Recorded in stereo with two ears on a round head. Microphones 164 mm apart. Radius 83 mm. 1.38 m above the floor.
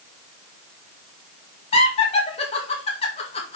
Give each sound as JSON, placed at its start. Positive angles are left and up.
{"t": 1.7, "sound": "laughter", "side_deg": 30, "distance_m": 2.0}